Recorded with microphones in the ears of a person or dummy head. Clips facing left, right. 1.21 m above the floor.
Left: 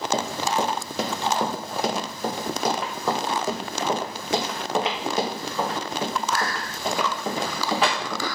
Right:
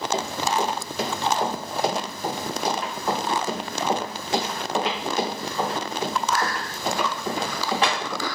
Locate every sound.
0.1 s running footsteps: 55° left (ahead or behind), 2 m; by 8.3 s 70° left (ahead or behind), 5.5 m